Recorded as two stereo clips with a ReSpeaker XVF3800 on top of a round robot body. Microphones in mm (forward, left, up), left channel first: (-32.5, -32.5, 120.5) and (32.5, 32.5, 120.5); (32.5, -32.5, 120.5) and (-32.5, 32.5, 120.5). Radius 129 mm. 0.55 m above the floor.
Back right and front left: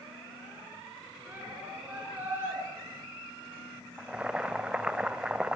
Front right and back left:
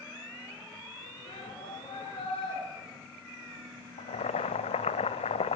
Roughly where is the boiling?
Ahead right.